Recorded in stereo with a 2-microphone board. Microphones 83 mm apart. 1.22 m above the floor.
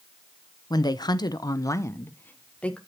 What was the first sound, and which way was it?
A woman speaking, 55° left (ahead or behind).